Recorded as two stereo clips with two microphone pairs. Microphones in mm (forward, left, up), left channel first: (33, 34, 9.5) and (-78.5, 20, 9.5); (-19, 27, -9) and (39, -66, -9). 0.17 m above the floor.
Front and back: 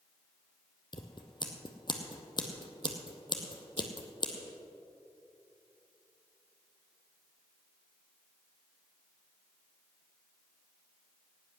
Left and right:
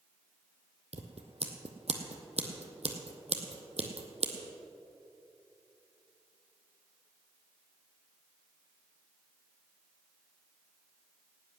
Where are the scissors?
40° right, 1.4 m.